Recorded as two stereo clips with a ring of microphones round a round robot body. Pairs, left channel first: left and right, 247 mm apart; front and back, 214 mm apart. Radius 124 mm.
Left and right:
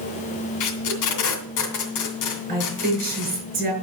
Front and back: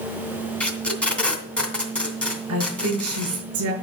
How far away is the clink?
No clink in this recording.